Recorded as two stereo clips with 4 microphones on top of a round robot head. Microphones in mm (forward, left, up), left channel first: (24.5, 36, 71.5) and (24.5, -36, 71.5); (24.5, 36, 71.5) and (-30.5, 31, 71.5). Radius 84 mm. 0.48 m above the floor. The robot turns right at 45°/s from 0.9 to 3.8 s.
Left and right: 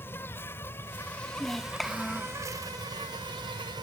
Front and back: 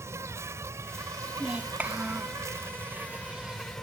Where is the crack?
I don't hear a crack.